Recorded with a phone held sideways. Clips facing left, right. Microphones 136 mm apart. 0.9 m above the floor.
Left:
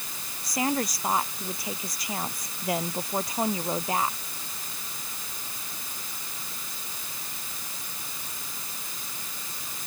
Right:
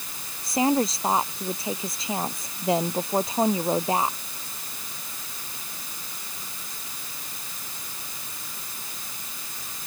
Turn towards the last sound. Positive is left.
turn(degrees=-25)  # may be behind; listen again after turning